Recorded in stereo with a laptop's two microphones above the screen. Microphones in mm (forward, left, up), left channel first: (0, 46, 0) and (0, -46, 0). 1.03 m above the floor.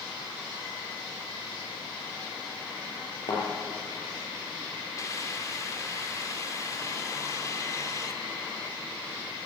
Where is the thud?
65° left (ahead or behind), 9.5 m.